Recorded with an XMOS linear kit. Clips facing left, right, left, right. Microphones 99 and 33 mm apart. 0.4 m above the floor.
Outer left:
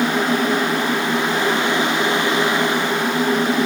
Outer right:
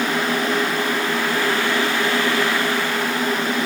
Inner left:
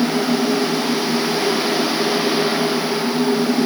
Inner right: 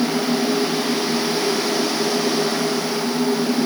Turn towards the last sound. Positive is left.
No sound to turn to.